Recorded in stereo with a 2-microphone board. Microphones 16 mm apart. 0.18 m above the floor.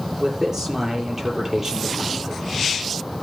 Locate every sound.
0.2 s a man speaking: 30° right (ahead or behind), 5.5 m